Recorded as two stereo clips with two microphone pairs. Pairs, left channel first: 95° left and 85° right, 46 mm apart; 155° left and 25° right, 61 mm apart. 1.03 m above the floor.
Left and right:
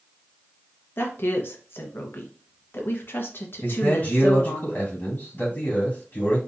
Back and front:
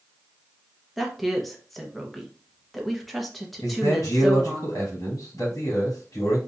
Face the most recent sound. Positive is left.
turn(degrees=145)